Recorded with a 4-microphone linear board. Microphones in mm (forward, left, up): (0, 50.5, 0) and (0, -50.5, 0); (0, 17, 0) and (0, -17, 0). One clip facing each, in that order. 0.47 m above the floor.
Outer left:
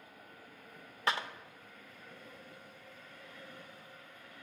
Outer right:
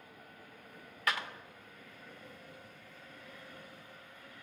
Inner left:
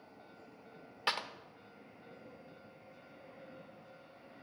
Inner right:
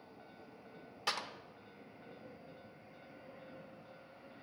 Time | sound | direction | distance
1.1 | a clap | 25° left (ahead or behind) | 0.7 m